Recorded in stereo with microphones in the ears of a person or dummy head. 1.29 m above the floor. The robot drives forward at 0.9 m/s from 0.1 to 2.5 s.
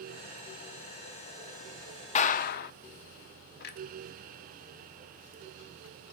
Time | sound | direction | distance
2.1 | a clap | 40° left (ahead or behind) | 0.8 m
3.6 | a clunk | 55° left (ahead or behind) | 1.1 m